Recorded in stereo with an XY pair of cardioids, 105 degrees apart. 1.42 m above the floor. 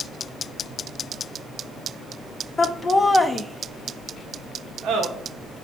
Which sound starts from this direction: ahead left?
Laughter, at 2.6 s.